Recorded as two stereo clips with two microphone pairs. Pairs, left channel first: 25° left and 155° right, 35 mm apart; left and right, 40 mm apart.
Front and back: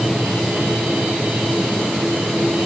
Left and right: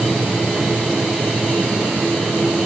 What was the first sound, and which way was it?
Only background noise.